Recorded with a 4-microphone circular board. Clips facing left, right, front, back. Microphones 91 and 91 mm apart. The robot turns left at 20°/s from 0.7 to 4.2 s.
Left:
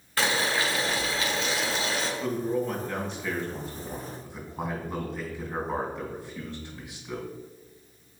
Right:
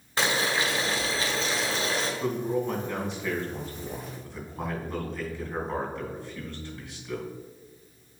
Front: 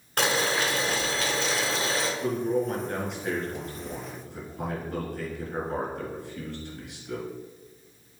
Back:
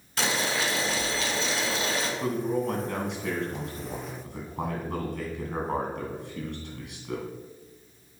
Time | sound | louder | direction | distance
0.2 | boiling | even, front 3 dB | 25° right | 1.8 m
2.2 | a man speaking | left 1 dB, front 1 dB | 150° right | 3 m